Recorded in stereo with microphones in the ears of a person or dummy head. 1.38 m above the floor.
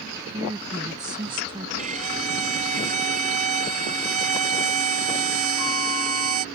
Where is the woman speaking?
15° right (ahead or behind); by 1.7 s 25° right (ahead or behind).